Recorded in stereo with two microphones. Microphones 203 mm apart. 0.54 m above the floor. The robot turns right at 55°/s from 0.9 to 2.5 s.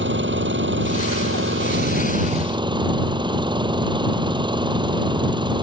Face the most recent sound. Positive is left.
turn(degrees=-25)